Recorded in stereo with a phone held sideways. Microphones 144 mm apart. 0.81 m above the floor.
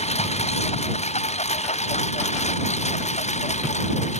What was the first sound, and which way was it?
A lawn mower, 45° left (ahead or behind).